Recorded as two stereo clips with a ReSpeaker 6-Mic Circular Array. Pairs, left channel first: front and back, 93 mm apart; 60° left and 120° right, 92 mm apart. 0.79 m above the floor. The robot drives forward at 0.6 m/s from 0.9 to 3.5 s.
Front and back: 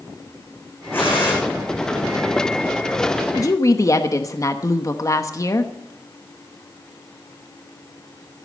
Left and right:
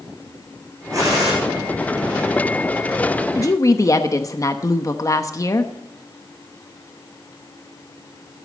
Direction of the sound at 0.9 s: 65° right.